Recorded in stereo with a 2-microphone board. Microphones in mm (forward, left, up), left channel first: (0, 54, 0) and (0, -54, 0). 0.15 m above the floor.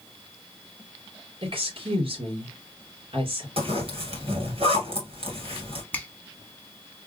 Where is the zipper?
60° right (ahead or behind), 2.5 m.